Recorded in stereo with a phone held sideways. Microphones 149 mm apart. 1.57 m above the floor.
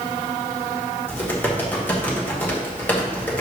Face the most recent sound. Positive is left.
turn(degrees=10)  # may be behind; listen again after turning